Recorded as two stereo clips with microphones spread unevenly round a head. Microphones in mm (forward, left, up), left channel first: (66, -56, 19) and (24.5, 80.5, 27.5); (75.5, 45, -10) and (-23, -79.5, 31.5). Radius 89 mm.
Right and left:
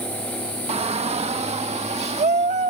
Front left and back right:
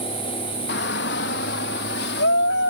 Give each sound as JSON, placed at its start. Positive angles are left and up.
{"t": 0.7, "sound": "a shout", "azimuth_deg": 60}